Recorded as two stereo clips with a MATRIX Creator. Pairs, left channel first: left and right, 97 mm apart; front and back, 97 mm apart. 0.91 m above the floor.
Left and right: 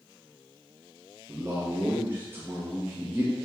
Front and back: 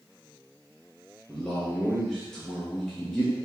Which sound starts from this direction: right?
A man speaking, at 1.3 s.